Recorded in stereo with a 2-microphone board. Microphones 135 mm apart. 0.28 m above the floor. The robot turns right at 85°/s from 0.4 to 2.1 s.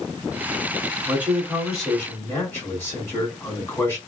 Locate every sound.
1.1 s a man speaking: 20° right (ahead or behind), 1.5 m; by 4.0 s 15° left (ahead or behind), 1.5 m